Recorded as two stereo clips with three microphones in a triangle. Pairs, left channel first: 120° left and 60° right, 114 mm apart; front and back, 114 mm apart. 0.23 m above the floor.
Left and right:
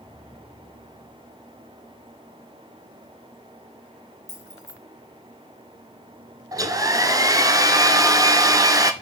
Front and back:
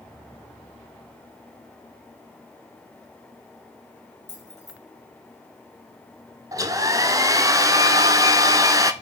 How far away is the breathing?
I don't hear breathing.